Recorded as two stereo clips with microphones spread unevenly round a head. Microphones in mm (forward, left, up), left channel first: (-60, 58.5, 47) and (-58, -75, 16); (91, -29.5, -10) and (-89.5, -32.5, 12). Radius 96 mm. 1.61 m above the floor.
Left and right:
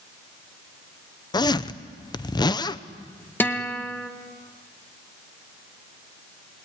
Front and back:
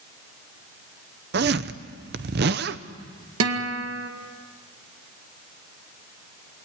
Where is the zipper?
145° left, 0.8 m.